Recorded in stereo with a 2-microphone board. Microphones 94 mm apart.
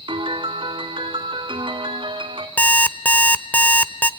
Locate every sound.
0.1 s a piano: 65° right (ahead or behind), 2 m
2.6 s an alarm clock: 15° left (ahead or behind), 0.7 m